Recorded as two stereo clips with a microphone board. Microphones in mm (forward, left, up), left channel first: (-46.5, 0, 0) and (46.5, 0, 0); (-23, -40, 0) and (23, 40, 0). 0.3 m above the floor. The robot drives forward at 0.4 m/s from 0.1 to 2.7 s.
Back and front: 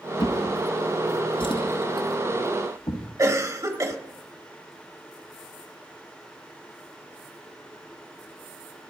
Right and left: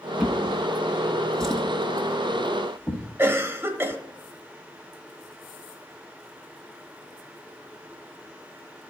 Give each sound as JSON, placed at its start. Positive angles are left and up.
{"t": 0.2, "sound": "a drawer", "azimuth_deg": 145, "distance_m": 1.0}
{"t": 3.2, "sound": "a cough", "azimuth_deg": 15, "distance_m": 1.1}